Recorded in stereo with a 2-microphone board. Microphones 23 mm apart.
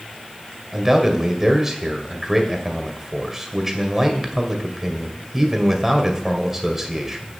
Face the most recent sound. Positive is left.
turn(degrees=-15)  # may be behind; listen again after turning